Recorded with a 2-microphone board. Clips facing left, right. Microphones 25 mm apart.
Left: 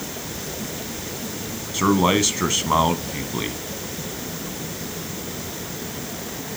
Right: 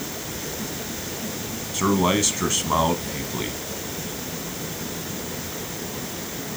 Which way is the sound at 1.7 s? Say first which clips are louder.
Left 2 dB; 15° left (ahead or behind).